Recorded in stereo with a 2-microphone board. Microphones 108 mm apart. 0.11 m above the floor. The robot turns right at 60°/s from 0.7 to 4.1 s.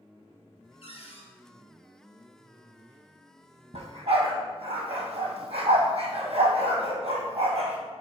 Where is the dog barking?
75° right (ahead or behind), 2.0 m; by 7.8 s 65° right (ahead or behind), 2.0 m.